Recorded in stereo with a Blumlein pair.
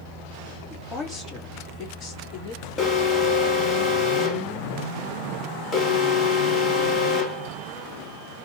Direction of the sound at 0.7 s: 15° left.